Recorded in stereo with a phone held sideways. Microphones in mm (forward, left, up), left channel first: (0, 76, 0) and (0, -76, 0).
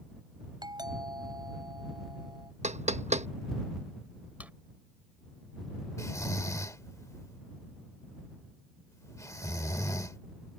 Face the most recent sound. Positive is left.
turn(degrees=20)  # may be behind; listen again after turning